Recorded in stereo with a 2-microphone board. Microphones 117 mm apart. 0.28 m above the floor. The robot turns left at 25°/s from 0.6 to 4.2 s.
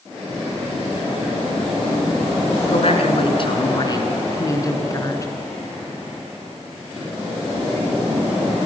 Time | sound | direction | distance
2.7 | a woman speaking | 70° left | 4 m